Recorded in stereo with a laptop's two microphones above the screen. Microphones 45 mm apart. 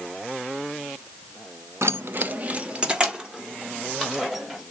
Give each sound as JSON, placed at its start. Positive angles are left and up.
{"t": 1.8, "sound": "keys jangling", "side_deg": -65, "distance_m": 0.5}